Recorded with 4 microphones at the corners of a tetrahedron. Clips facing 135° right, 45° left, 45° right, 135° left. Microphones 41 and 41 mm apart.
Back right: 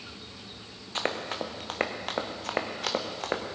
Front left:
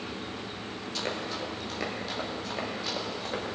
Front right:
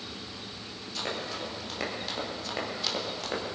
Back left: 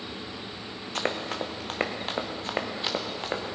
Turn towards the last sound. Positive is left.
turn(degrees=-160)